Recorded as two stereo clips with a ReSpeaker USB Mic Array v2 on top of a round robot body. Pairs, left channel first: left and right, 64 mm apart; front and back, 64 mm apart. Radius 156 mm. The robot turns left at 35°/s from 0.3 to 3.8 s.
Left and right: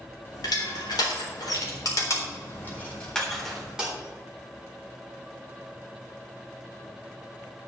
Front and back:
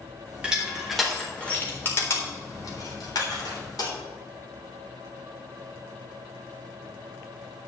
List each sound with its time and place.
0.4 s crushing: 110° left, 3.5 m; by 3.9 s 10° right, 3.5 m